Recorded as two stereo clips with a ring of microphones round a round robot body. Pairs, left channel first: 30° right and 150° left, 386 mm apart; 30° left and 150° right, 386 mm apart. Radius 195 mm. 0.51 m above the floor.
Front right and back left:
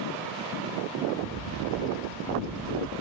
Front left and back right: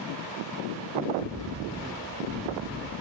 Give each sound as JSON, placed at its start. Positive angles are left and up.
{"t": 1.2, "sound": "a bird", "azimuth_deg": 115, "distance_m": 4.0}